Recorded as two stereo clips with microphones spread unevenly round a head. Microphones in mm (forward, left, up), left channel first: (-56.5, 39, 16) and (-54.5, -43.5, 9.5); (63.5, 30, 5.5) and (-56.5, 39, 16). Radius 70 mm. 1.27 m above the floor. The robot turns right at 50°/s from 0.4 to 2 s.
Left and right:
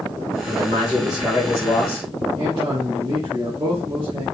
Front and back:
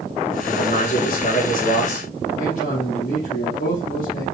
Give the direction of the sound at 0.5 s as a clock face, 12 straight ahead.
2 o'clock.